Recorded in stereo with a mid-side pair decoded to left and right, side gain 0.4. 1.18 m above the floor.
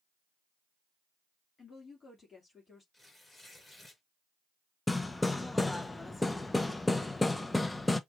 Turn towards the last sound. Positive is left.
turn(degrees=20)